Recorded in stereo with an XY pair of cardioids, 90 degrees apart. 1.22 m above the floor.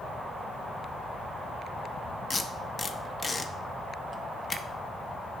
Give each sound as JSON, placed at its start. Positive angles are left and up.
{"t": 2.3, "sound": "tape being pulled", "azimuth_deg": 35, "distance_m": 0.8}